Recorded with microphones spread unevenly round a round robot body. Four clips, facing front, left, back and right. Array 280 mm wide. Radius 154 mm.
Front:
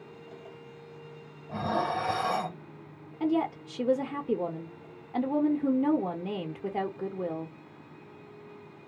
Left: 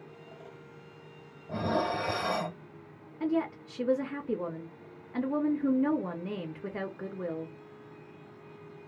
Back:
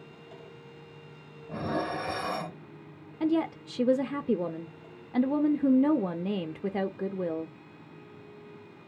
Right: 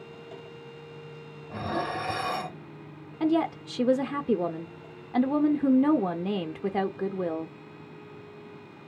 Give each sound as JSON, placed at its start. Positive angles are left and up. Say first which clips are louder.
{"t": 1.5, "sound": "dishes clattering", "louder": "left 1 dB, front 2 dB", "azimuth_deg": 135, "distance_m": 1.6}
{"t": 3.2, "sound": "a woman speaking", "louder": "right 5 dB, even", "azimuth_deg": -100, "distance_m": 0.6}